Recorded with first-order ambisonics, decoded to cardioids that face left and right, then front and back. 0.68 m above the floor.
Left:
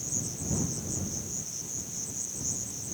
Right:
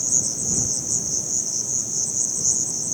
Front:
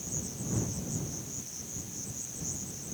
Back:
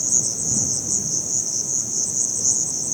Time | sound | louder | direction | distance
0.0 | an insect | right 12 dB, back 17 dB | 140° right | ?